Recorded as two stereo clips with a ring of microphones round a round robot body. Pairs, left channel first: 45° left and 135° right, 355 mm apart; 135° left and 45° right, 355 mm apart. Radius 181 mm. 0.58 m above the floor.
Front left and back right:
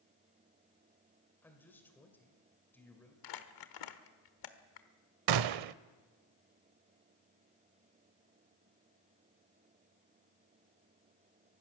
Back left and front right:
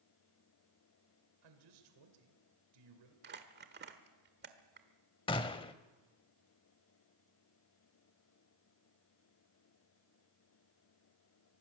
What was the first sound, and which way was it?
A man speaking, 40° right.